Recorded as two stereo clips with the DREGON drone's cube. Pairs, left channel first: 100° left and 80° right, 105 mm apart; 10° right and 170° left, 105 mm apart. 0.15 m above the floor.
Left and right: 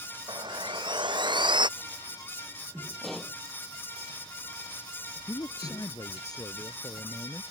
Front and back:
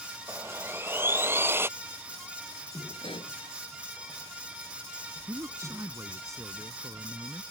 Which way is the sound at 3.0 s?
15° left.